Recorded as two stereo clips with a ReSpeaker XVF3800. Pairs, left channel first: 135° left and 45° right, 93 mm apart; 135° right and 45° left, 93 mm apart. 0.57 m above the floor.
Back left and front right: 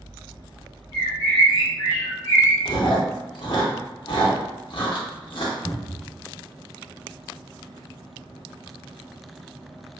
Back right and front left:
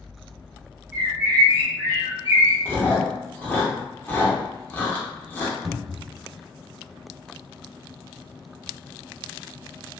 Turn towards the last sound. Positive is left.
turn(degrees=140)